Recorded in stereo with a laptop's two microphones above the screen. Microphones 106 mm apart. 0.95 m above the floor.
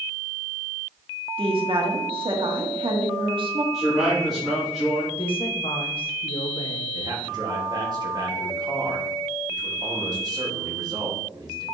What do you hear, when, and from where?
1.4 s a woman speaking: 55° right (ahead or behind), 1.9 m
3.7 s a man speaking: centre (ahead or behind), 3 m
5.2 s a woman speaking: 55° left (ahead or behind), 1.1 m
6.9 s a man speaking: 40° right (ahead or behind), 1.7 m